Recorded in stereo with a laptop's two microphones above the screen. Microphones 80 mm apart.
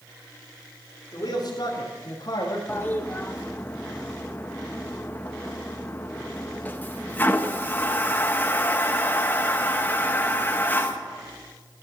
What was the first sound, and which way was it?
A man speaking, 55° left (ahead or behind).